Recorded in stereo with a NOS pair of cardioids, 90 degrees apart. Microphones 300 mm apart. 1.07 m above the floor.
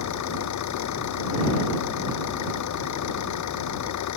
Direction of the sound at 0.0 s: 70° left.